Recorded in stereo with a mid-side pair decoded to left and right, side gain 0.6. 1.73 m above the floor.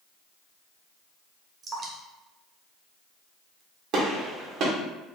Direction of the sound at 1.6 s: 40° right.